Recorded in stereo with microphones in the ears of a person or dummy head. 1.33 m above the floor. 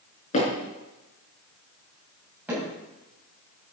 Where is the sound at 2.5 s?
Centre (ahead or behind), 7.5 m.